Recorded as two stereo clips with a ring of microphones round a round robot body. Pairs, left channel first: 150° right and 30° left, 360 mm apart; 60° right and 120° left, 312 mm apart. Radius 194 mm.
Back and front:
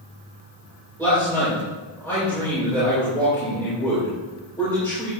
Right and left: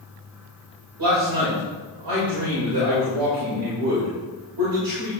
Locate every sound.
1.0 s a man speaking: 125° left, 4.5 m